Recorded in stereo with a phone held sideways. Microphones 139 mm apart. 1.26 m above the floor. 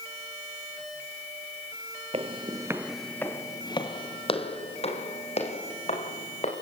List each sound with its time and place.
2.1 s footsteps: 40° right (ahead or behind), 1.6 m; by 6.5 s 50° left (ahead or behind), 6 m